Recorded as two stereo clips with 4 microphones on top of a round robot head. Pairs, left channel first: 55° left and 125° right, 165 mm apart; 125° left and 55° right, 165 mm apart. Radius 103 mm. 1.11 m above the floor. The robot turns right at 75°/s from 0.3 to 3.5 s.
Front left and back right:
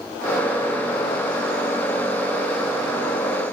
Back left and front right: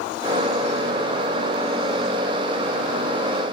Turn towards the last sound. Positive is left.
No sound to turn to.